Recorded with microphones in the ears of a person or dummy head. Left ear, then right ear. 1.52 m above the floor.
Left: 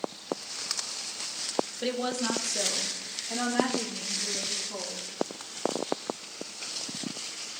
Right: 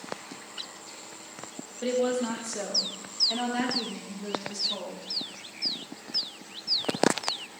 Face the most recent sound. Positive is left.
turn(degrees=-15)  # may be behind; listen again after turning